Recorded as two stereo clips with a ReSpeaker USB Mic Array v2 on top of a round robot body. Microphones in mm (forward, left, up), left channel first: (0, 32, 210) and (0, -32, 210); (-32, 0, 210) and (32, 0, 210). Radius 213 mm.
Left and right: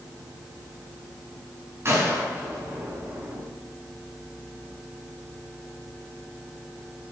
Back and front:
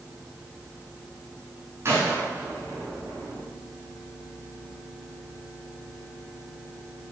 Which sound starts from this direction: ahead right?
A gunshot, at 1.9 s.